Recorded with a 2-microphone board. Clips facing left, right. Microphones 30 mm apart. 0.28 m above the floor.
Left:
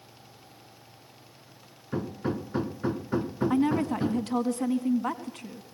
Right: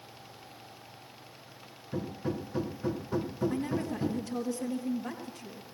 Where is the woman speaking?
65° left (ahead or behind), 2 m.